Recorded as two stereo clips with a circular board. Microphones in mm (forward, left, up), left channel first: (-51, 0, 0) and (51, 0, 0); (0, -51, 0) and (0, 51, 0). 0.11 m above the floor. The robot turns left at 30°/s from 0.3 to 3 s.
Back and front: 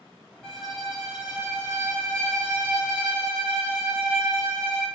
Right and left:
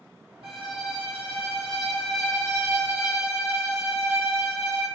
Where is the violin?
100° left, 1.1 m; by 4.9 s 25° left, 1.1 m.